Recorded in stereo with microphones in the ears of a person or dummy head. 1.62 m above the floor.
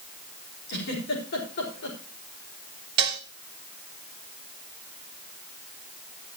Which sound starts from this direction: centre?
Dishes clattering, at 3.0 s.